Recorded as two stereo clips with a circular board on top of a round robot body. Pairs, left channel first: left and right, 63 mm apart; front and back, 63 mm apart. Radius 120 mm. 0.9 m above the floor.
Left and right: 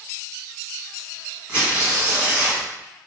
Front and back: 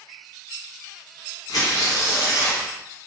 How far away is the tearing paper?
About 1.5 m.